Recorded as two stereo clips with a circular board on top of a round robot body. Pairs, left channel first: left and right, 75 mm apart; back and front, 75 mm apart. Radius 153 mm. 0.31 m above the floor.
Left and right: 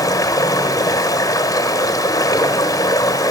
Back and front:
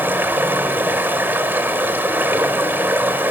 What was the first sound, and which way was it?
Running water, 55° left.